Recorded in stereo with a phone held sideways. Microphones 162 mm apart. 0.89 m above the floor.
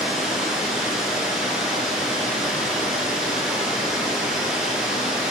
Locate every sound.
0.0 s running water: 5° right (ahead or behind), 2.5 m